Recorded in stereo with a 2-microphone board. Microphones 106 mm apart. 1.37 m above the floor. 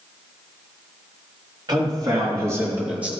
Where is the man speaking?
40° right (ahead or behind), 3 m; by 3.1 s 10° right (ahead or behind), 2 m.